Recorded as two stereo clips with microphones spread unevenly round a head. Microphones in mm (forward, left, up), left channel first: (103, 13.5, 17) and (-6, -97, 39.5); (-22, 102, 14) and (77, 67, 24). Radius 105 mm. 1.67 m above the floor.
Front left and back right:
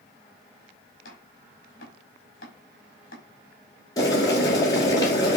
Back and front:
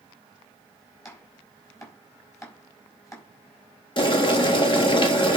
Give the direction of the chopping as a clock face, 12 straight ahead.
9 o'clock.